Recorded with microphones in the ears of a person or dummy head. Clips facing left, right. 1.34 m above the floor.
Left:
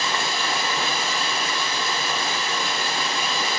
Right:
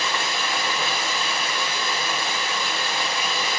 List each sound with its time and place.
0.0 s running water: 35° left (ahead or behind), 3.5 m